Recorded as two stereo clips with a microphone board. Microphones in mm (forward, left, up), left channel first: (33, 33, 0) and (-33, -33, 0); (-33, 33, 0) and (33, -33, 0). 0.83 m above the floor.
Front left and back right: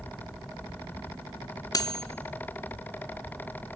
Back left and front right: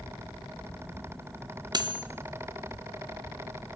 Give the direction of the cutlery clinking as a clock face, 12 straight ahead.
12 o'clock.